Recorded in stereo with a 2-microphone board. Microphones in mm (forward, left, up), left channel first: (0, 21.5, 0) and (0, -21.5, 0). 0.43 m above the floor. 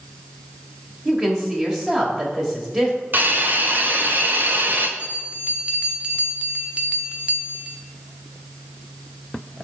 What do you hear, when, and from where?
1.1 s a woman speaking: 20° right (ahead or behind), 1.8 m
3.1 s a hiss: 50° right (ahead or behind), 1.1 m
5.0 s a bell: 25° right (ahead or behind), 1.0 m